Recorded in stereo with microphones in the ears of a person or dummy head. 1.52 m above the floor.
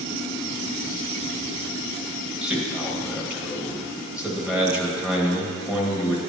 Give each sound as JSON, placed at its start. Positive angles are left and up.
{"t": 2.4, "sound": "a man speaking", "side_deg": -5, "distance_m": 1.8}